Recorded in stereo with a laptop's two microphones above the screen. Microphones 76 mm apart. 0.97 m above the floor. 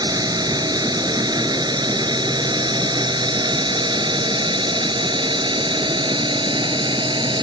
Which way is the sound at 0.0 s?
60° right (ahead or behind).